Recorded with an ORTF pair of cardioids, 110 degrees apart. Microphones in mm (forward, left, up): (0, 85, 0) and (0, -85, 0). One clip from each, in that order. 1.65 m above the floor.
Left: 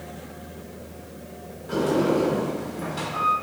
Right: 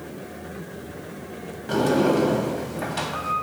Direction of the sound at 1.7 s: 45° right.